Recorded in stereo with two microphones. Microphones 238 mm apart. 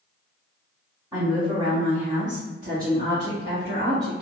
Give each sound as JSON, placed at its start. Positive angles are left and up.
{"t": 1.1, "sound": "a woman speaking", "side_deg": -10, "distance_m": 1.6}